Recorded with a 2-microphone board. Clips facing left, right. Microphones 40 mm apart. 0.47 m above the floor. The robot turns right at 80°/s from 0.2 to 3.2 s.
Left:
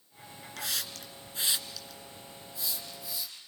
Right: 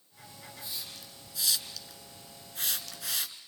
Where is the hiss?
80° left, 2.5 m; by 3.4 s 70° right (ahead or behind), 2.5 m.